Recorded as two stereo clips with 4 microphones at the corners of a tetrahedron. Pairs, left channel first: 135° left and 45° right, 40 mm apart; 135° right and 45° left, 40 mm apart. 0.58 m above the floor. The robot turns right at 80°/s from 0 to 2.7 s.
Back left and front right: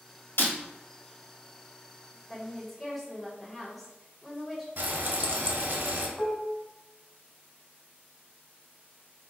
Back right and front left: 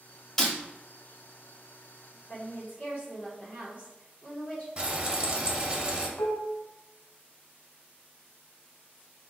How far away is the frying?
About 0.6 m.